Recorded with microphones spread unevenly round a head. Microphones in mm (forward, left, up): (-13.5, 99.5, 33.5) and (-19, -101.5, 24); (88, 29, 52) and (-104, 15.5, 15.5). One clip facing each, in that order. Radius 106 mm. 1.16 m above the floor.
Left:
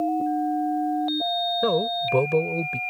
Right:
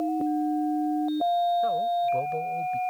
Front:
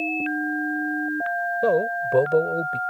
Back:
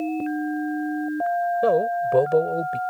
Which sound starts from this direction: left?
A man speaking, at 1.6 s.